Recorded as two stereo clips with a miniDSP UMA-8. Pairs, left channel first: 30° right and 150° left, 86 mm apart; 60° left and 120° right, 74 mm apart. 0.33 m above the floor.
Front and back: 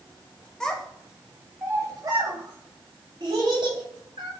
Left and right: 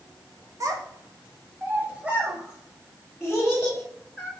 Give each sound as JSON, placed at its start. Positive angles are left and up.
{"t": 0.6, "sound": "a child speaking", "azimuth_deg": -110, "distance_m": 0.8}